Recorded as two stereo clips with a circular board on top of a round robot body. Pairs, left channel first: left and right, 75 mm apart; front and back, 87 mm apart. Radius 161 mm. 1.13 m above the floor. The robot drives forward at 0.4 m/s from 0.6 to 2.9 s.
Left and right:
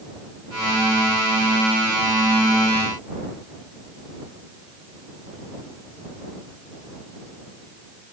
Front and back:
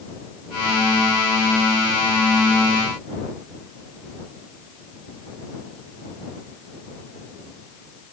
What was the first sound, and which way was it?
Only background noise.